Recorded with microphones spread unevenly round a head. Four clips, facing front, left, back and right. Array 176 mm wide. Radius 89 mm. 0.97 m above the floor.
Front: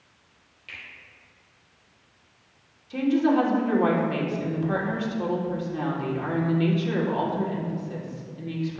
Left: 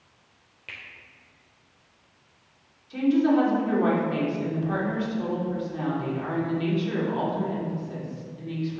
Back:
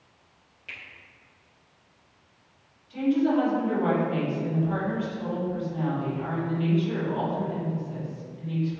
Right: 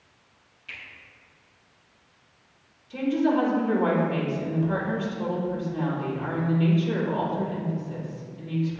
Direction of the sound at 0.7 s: 105° left.